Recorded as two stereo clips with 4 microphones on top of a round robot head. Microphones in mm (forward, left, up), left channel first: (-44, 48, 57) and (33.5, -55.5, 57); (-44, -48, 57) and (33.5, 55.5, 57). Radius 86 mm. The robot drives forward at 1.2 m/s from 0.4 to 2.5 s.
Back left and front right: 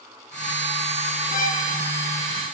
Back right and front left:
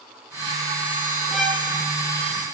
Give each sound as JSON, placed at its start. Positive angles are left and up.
{"t": 1.3, "sound": "a violin", "azimuth_deg": 145, "distance_m": 3.0}